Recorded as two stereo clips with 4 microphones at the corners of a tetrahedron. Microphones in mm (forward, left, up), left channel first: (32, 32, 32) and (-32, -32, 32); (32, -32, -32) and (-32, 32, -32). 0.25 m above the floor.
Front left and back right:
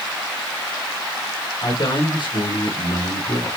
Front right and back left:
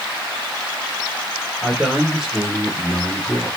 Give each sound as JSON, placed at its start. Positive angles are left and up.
{"t": 1.6, "sound": "a man speaking", "azimuth_deg": 55, "distance_m": 5.0}